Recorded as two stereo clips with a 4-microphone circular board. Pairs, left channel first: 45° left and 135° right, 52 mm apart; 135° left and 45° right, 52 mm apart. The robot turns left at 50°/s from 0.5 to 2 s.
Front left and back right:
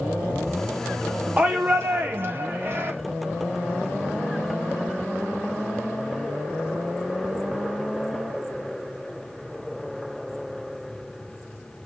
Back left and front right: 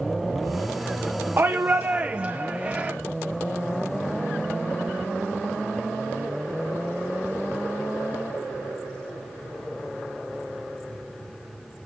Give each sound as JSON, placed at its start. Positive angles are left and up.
{"t": 1.4, "sound": "a shout", "azimuth_deg": -75, "distance_m": 0.7}